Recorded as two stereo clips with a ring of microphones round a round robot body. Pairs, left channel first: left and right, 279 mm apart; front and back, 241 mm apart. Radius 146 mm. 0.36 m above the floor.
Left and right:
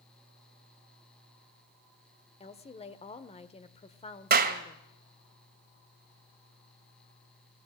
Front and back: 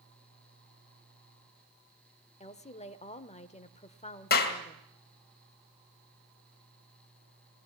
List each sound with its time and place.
2.4 s a woman speaking: 40° left, 1.0 m
4.3 s a clap: 45° right, 2 m